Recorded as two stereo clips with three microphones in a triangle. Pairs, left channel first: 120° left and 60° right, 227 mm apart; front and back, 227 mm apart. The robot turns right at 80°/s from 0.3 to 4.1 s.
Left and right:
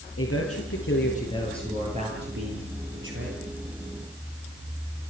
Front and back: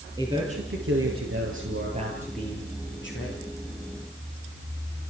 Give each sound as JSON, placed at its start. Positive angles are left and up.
{"t": 0.2, "sound": "a man speaking", "azimuth_deg": 105, "distance_m": 8.5}